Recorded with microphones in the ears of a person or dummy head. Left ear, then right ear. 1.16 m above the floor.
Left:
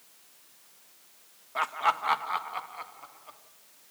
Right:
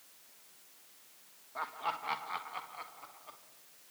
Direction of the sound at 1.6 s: 70° left (ahead or behind).